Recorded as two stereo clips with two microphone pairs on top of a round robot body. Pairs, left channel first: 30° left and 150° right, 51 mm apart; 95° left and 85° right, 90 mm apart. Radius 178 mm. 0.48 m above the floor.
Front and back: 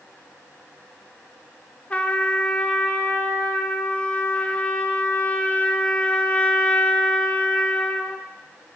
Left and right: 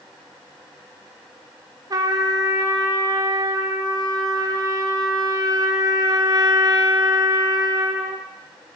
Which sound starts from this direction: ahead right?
A trumpet, at 1.9 s.